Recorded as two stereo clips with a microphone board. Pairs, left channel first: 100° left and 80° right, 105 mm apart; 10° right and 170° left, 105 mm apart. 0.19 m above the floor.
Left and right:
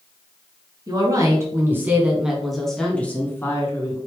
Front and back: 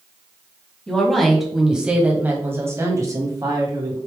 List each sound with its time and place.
0.9 s a woman speaking: 90° right, 1.4 m; by 4.0 s 145° left, 1.5 m